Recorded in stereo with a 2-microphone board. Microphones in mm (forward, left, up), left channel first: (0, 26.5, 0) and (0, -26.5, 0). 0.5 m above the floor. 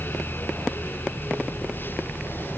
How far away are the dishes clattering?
I don't hear dishes clattering.